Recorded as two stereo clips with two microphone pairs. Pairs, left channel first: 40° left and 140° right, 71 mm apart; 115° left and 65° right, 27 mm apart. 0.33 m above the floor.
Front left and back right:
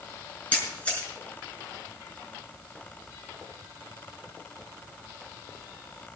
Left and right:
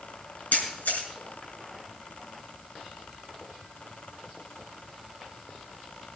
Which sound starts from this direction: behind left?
A camera shutter, at 0.5 s.